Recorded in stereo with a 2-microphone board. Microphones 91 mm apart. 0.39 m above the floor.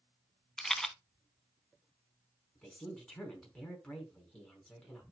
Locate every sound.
0.6 s a rattle: 5° left (ahead or behind), 0.7 m
2.5 s a woman speaking: 15° left (ahead or behind), 4.5 m